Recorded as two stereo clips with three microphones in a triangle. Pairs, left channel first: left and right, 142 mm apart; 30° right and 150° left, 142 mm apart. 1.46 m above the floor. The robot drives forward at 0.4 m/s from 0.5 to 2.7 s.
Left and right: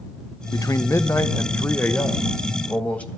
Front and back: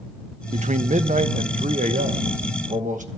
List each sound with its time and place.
0.5 s a man speaking: 145° left, 0.5 m; by 3.1 s 170° left, 1.3 m